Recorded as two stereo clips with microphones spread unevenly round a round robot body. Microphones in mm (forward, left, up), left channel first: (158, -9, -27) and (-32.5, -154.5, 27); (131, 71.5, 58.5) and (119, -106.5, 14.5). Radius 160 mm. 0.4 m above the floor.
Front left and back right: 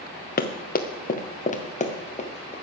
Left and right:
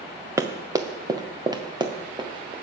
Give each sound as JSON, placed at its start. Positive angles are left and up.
{"t": 0.4, "sound": "running footsteps", "azimuth_deg": -15, "distance_m": 1.9}